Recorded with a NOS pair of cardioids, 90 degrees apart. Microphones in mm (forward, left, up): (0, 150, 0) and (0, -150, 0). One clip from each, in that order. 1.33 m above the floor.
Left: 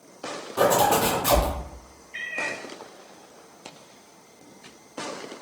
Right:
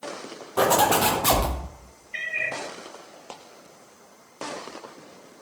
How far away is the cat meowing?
About 1.9 m.